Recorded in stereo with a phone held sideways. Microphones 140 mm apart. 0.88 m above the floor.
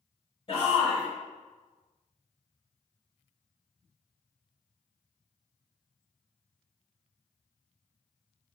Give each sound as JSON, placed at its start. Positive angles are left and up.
{"t": 0.5, "sound": "a shout", "side_deg": 35, "distance_m": 1.1}